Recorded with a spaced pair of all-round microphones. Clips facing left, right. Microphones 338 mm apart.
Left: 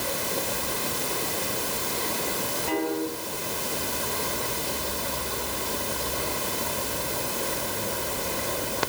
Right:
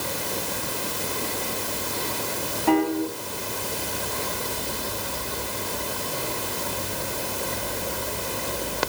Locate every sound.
2.7 s a piano: 70° right (ahead or behind), 4.5 m